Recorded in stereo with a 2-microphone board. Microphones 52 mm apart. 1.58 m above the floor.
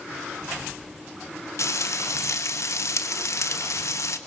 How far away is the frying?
About 2.0 m.